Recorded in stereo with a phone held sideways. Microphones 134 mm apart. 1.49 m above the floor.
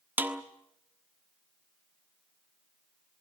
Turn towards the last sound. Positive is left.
turn(degrees=-15)  # may be behind; listen again after turning